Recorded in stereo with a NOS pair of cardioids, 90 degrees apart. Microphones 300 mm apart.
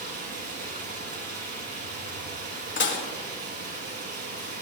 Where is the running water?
55° right, 6 m.